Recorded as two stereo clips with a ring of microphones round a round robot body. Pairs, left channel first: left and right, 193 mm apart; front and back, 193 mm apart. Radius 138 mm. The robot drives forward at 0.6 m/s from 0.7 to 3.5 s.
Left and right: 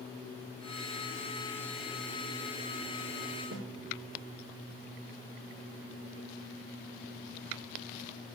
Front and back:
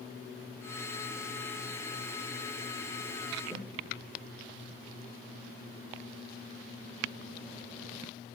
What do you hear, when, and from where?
3.5 s a snare drum: 90° right, 3.5 m